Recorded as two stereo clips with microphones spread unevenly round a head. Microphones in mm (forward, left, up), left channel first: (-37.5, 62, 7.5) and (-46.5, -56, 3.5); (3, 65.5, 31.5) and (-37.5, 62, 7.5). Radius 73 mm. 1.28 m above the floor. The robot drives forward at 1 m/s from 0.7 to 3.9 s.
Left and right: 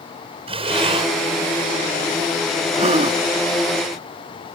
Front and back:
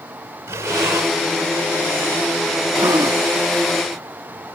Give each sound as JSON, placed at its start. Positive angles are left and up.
{"t": 0.5, "sound": "breathing", "azimuth_deg": -135}
{"t": 2.7, "sound": "a gasp", "azimuth_deg": -125}